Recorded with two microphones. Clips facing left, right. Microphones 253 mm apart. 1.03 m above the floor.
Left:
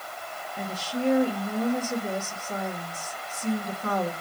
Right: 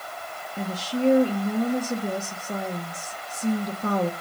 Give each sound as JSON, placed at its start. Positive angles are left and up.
{"t": 0.6, "sound": "a woman speaking", "side_deg": -40, "distance_m": 1.7}